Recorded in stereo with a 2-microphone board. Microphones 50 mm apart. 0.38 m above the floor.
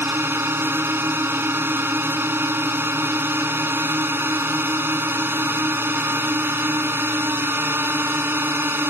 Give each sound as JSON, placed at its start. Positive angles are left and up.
{"t": 0.0, "sound": "a drone", "side_deg": -45}